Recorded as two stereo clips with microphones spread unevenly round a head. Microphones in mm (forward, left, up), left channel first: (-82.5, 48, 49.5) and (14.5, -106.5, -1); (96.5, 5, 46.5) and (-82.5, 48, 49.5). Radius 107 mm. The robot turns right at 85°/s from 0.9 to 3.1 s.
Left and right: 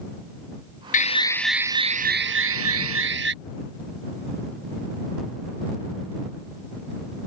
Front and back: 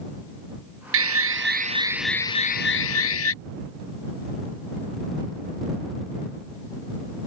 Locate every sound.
0.9 s an alarm: 160° left; by 3.3 s 15° right